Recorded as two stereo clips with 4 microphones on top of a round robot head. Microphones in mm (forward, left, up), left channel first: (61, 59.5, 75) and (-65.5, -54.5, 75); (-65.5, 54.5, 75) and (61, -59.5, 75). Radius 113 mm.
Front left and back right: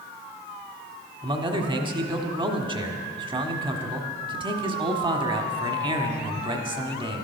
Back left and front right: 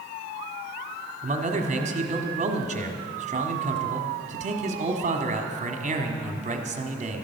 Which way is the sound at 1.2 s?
80° right.